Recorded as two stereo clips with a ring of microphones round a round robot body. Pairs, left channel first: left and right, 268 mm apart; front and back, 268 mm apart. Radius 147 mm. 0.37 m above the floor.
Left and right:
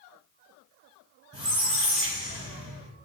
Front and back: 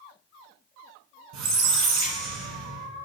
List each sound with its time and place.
1.3 s a squeak: 160° right, 1.1 m